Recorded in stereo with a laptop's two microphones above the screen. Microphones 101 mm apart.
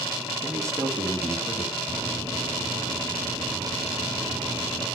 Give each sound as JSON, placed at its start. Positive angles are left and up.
{"t": 0.4, "sound": "a man speaking", "side_deg": -35, "distance_m": 3.0}
{"t": 1.9, "sound": "a microwave", "side_deg": -75, "distance_m": 5.5}